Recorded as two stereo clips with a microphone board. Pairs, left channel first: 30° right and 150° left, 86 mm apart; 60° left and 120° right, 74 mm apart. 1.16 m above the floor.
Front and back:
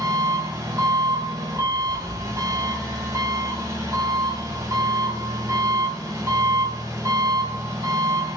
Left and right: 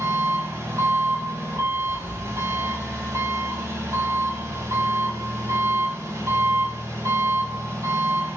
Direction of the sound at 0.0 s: 165° right.